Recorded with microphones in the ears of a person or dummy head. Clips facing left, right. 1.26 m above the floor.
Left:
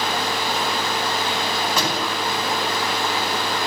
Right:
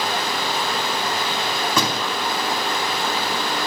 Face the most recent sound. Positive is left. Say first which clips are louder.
# right 1 dB
turn(degrees=-85)